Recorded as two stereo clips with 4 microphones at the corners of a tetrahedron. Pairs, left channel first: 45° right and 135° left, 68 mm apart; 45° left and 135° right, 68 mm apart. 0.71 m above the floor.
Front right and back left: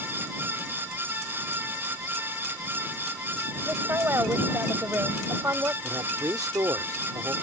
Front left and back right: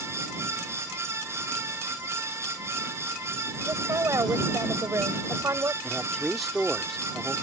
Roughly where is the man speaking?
Behind left.